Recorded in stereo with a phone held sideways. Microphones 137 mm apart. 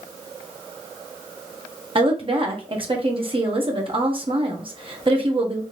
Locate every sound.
1.9 s a woman speaking: 40° right (ahead or behind), 1.0 m